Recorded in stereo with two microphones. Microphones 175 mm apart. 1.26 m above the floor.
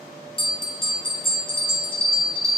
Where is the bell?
30° left (ahead or behind), 0.6 m.